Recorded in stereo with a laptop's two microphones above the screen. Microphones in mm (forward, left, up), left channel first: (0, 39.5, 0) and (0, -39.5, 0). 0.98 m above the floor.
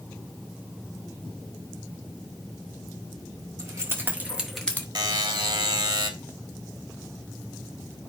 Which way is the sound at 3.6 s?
40° right (ahead or behind).